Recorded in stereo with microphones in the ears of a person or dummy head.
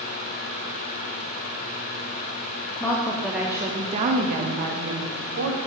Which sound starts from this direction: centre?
A woman speaking, at 2.8 s.